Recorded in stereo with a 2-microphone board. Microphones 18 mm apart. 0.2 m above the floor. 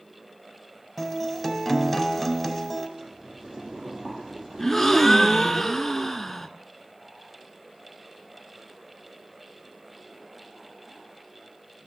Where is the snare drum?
I don't hear a snare drum.